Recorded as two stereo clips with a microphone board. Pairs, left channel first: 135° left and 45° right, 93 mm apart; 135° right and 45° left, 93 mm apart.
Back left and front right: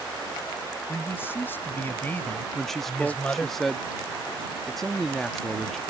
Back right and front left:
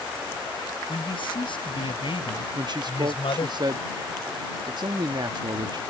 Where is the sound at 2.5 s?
50° left.